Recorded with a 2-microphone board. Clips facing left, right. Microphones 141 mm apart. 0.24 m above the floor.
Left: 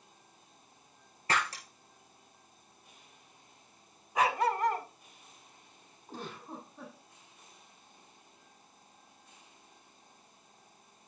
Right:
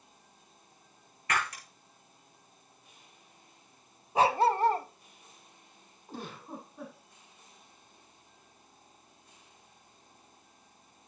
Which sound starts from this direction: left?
Breaking glass, at 1.3 s.